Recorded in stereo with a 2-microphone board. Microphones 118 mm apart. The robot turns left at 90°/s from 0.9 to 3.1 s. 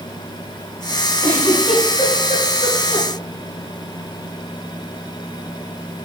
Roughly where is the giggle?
Right.